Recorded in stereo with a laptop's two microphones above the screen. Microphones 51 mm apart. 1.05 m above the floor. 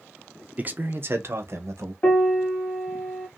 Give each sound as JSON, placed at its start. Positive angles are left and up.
{"t": 0.6, "sound": "a man speaking", "side_deg": -30, "distance_m": 0.6}
{"t": 2.0, "sound": "a piano", "side_deg": 35, "distance_m": 0.7}